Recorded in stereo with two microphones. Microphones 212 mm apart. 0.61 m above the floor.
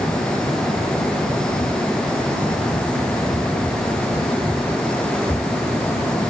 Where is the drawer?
No drawer in this recording.